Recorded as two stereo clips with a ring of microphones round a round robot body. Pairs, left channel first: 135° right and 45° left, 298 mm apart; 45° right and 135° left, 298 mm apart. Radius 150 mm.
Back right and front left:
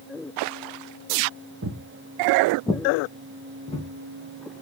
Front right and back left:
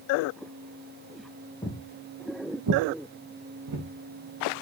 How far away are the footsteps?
About 0.6 m.